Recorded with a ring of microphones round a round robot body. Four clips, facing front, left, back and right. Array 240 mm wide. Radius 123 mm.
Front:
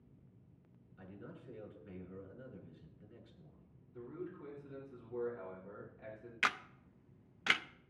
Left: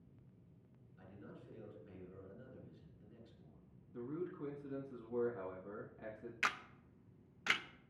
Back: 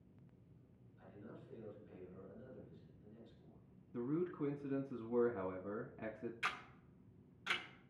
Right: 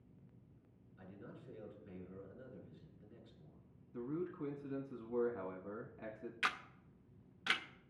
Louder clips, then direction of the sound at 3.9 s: Right 2 dB, back 7 dB; 170° right.